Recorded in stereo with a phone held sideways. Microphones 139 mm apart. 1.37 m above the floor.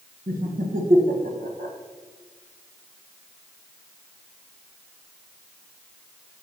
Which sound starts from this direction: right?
Laughter, at 0.3 s.